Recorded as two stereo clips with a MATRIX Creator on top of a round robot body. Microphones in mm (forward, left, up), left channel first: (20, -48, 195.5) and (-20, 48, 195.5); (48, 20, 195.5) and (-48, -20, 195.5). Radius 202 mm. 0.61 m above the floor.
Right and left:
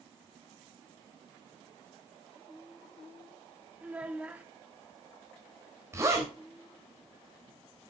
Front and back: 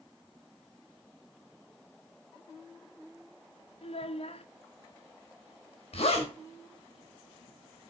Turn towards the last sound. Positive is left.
turn(degrees=50)